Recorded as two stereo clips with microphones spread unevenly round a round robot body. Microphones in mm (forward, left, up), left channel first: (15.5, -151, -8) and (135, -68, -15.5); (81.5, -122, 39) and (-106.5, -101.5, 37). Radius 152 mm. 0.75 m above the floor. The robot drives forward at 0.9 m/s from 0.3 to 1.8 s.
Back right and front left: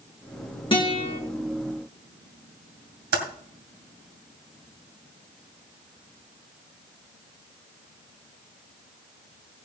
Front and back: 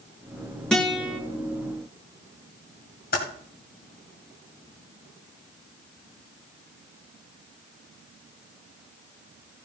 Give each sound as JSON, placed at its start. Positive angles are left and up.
{"t": 0.7, "sound": "a guitar", "azimuth_deg": -95, "distance_m": 2.0}
{"t": 3.1, "sound": "typing on a keyboard", "azimuth_deg": 55, "distance_m": 2.0}